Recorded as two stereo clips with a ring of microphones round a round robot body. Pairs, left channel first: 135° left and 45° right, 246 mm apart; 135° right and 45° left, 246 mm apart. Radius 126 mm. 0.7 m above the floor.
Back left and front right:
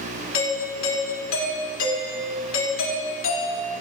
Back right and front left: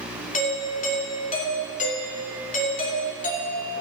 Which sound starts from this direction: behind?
A doorbell, at 0.3 s.